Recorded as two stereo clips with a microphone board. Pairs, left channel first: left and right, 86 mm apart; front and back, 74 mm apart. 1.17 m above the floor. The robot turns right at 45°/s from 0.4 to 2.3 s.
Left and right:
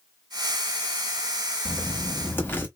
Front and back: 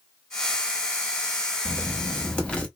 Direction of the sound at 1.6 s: 30° left.